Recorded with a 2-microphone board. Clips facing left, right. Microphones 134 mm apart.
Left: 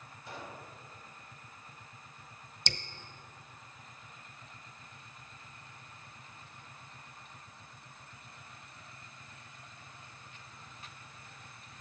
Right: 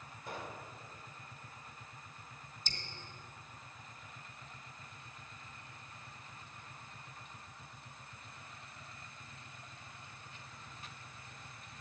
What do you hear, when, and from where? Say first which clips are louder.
0.3 s a pop: right 1 dB; 50° right (ahead or behind), 2.5 m
2.7 s dripping: left 9 dB; 75° left (ahead or behind), 0.7 m